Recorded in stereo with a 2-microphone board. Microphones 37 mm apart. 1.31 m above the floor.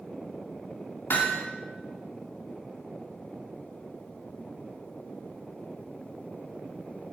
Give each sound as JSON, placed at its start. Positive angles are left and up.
{"t": 1.1, "sound": "hammering", "side_deg": 80, "distance_m": 2.0}